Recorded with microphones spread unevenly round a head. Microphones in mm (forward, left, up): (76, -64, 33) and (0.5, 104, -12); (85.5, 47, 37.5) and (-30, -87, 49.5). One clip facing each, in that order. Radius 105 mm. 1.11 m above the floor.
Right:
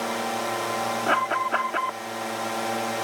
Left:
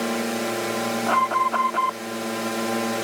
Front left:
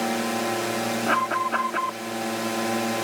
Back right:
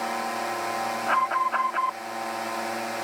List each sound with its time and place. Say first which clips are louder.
0.0 s a drone: left 4 dB, front left 5 dB; 80° left
1.1 s an alarm: left 2 dB, front left 2 dB; 5° left